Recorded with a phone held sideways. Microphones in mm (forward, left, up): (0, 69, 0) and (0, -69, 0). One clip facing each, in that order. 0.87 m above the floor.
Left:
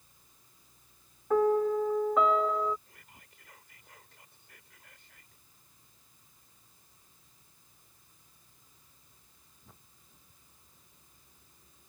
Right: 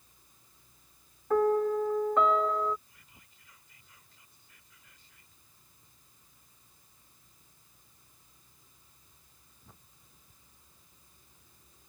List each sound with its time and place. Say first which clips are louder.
1.3 s a piano: even; centre (ahead or behind)
2.9 s whispering: left 4 dB; 65° left (ahead or behind)